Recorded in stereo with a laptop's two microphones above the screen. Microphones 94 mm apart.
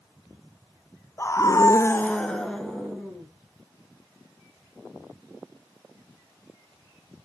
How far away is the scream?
About 0.8 m.